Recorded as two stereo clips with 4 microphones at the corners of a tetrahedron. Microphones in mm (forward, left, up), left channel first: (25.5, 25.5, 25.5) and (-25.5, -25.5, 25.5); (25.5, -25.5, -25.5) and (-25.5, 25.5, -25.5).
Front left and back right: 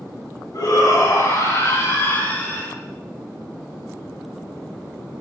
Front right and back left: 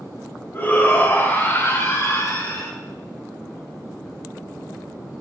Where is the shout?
15° left, 6 m; by 2.7 s 20° right, 4.5 m.